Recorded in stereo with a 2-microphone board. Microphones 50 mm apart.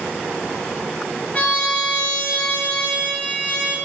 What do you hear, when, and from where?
1.3 s a trumpet: 30° left (ahead or behind), 0.8 m